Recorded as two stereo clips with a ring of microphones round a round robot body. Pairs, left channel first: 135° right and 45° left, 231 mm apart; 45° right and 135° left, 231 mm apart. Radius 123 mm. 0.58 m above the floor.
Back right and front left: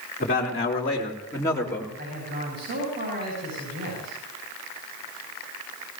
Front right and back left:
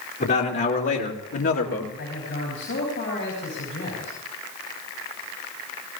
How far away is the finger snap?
I don't hear a finger snap.